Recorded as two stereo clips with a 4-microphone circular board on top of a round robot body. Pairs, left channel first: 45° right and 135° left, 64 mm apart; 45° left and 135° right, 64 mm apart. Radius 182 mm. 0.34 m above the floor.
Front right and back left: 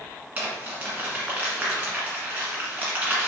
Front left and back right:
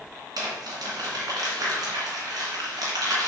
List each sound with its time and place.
0.4 s crumpling: 160° right, 1.2 m